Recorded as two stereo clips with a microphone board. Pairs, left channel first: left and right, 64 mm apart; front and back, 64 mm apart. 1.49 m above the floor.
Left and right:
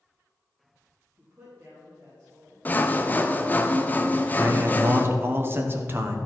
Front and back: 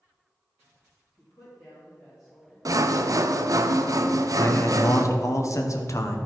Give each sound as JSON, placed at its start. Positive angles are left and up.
{"t": 1.2, "sound": "a woman speaking", "azimuth_deg": -30, "distance_m": 3.0}
{"t": 2.6, "sound": "sawing", "azimuth_deg": 155, "distance_m": 0.6}
{"t": 4.4, "sound": "a man speaking", "azimuth_deg": -35, "distance_m": 1.0}